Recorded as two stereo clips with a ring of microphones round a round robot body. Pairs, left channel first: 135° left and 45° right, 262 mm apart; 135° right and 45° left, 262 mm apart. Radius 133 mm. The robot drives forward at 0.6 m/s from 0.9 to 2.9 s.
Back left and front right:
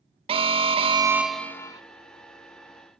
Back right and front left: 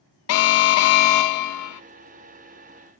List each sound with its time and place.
0.3 s an alarm: 115° right, 0.5 m; by 1.8 s 150° right, 0.9 m